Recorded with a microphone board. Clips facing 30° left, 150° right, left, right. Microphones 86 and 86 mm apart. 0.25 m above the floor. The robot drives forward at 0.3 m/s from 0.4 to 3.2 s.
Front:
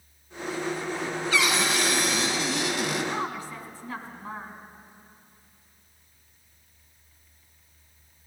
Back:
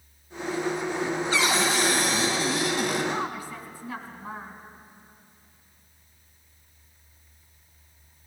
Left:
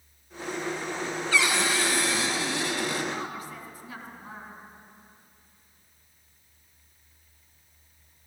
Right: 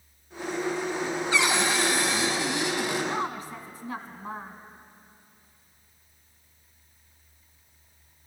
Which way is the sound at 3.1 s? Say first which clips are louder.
Back 1 dB, right 4 dB; 75° right.